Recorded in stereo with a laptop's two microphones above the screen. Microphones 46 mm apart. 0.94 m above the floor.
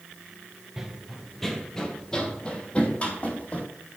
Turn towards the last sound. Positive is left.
turn(degrees=35)  # may be behind; listen again after turning